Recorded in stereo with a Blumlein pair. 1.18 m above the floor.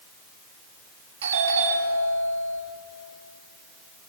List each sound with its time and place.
1.2 s a doorbell: 55° right, 3 m